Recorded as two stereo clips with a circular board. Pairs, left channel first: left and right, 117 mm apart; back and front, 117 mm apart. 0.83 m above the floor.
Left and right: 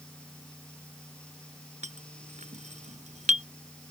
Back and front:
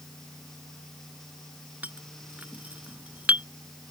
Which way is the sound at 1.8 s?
80° right.